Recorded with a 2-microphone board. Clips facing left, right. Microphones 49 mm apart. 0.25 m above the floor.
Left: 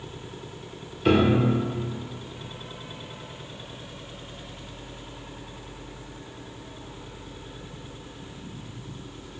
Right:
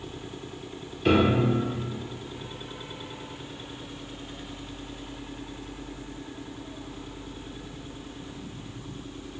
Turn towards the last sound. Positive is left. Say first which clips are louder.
# left 1 dB
turn(degrees=0)  # may be behind; listen again after turning